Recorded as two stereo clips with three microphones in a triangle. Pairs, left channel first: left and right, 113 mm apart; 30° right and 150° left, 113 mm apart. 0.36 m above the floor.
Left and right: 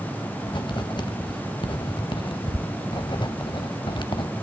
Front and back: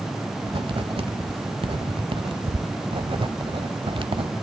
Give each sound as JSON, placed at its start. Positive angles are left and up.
{"t": 0.5, "sound": "writing", "azimuth_deg": 125, "distance_m": 0.9}